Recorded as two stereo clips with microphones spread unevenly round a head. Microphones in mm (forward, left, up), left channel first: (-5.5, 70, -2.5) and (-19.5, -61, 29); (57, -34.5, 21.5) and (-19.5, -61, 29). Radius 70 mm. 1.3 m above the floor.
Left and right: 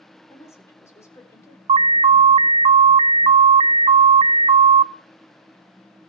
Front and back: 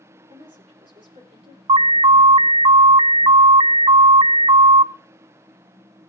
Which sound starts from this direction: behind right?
An alarm, at 1.7 s.